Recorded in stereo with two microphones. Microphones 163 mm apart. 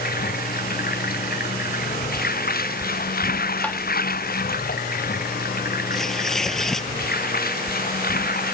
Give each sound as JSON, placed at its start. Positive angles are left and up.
{"t": 0.0, "sound": "running water", "side_deg": 65}
{"t": 3.6, "sound": "tapping", "side_deg": 10}
{"t": 5.9, "sound": "tearing paper", "side_deg": 5}